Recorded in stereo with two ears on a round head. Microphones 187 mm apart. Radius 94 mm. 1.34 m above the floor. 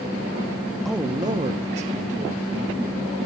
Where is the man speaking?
Centre (ahead or behind), 0.6 m; by 2.8 s 45° right (ahead or behind), 2 m.